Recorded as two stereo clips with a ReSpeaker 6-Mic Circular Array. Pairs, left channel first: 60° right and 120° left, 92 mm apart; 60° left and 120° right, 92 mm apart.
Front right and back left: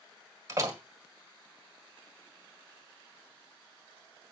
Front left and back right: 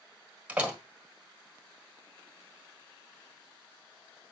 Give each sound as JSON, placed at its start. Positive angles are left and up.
{"t": 0.5, "sound": "a door slam", "azimuth_deg": 170, "distance_m": 1.5}